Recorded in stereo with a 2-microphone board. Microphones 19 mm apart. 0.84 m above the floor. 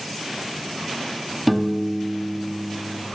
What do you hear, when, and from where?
1.5 s a piano: centre (ahead or behind), 0.8 m